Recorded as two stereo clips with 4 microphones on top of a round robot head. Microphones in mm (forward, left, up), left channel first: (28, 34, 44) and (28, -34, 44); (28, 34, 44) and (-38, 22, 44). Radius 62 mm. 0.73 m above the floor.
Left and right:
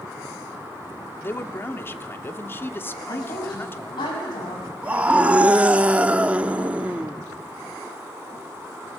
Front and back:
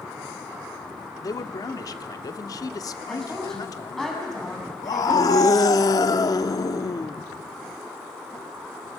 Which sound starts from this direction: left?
A woman speaking, at 3.1 s.